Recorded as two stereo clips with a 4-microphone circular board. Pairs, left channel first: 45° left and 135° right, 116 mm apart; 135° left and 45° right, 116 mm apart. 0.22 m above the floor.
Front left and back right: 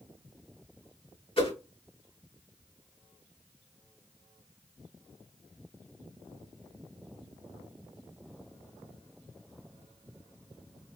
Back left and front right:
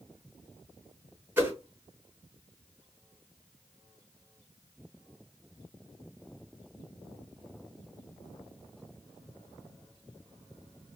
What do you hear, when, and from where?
1.4 s a whoosh: 25° left, 3 m